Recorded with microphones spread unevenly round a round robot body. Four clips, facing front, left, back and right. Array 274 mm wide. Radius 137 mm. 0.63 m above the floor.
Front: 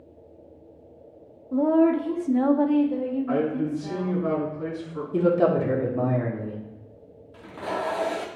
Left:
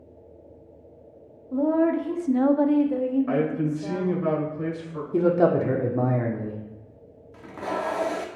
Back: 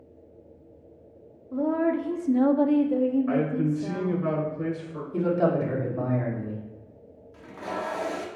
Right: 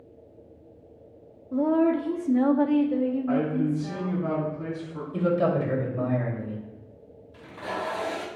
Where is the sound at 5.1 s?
65° left, 1.7 m.